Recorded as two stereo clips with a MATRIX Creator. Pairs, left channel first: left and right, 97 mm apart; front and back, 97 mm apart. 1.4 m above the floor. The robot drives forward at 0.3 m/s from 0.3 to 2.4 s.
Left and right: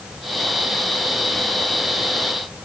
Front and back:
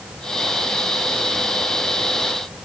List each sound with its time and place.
Only background noise.